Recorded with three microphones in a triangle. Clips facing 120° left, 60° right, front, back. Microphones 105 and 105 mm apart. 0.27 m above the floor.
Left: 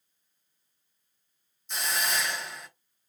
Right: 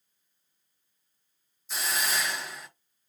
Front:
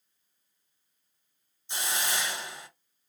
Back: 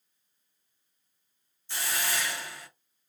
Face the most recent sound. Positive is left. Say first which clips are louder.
# even, even
turn(degrees=25)